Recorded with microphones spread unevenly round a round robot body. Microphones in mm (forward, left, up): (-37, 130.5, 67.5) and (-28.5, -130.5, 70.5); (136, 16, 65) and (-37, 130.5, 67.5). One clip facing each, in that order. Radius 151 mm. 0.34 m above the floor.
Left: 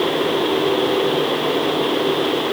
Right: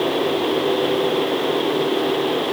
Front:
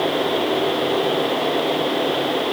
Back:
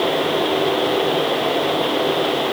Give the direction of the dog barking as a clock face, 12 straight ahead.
I don't hear a dog barking.